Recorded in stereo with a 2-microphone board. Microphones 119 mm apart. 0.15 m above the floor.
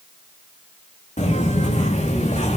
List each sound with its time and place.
1.2 s footsteps: 90° left, 5.5 m